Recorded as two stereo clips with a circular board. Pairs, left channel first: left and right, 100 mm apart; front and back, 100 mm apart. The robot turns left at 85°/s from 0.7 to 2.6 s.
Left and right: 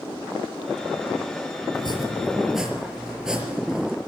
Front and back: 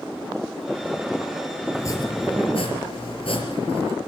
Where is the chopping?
65° left, 4 m; by 4.0 s 5° right, 4 m.